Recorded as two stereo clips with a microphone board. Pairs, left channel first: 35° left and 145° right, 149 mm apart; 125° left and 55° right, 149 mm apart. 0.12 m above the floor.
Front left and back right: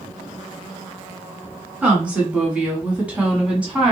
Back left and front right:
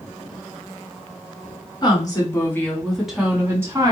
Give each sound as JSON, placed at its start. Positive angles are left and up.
{"t": 1.8, "sound": "a woman speaking", "azimuth_deg": 140, "distance_m": 1.4}